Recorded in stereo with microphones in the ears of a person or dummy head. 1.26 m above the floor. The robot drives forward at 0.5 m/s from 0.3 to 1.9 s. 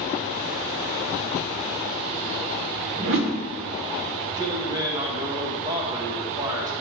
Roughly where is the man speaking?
Right.